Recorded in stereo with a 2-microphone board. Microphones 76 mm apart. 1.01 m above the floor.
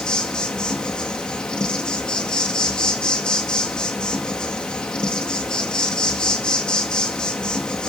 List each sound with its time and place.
0.0 s an insect: 10° left (ahead or behind), 1.9 m